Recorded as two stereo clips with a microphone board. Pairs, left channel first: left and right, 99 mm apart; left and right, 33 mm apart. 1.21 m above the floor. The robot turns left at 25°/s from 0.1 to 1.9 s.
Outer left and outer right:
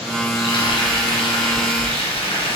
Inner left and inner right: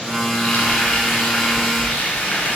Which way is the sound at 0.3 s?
120° left.